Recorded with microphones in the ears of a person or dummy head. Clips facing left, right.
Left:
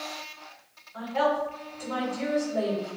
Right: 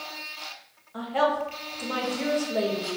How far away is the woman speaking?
About 0.7 m.